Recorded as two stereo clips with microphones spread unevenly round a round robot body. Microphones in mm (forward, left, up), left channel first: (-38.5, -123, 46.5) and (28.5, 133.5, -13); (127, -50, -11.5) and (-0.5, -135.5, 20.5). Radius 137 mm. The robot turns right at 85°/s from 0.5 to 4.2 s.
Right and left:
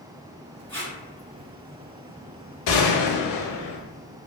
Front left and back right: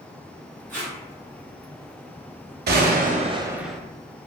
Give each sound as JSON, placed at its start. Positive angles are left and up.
{"t": 0.7, "sound": "tape being pulled", "azimuth_deg": 160, "distance_m": 1.3}
{"t": 2.7, "sound": "a gunshot", "azimuth_deg": -140, "distance_m": 0.5}